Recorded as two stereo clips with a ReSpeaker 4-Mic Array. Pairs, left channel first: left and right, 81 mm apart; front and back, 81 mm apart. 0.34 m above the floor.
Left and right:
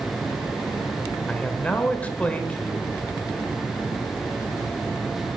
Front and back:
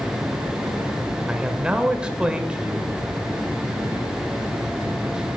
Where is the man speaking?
125° left, 0.8 m.